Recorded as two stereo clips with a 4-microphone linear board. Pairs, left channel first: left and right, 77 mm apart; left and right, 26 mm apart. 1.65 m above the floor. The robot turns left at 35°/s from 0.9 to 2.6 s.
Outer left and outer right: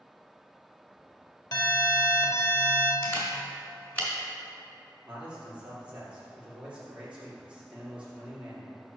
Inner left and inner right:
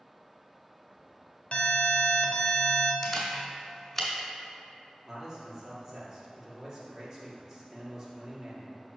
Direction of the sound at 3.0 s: 25° left (ahead or behind).